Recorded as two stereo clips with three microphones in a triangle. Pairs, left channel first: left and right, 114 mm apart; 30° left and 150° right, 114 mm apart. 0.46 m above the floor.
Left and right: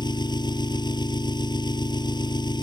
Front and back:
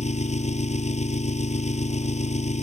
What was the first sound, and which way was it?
An engine running, 40° left.